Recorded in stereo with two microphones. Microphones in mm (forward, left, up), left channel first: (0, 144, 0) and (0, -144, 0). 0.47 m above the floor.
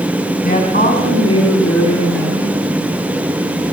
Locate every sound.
0.4 s a woman speaking: 30° left (ahead or behind), 4 m; by 2.6 s 5° left (ahead or behind), 6.5 m